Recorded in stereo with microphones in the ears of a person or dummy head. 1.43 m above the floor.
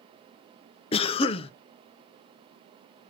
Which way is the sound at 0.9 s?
30° left (ahead or behind).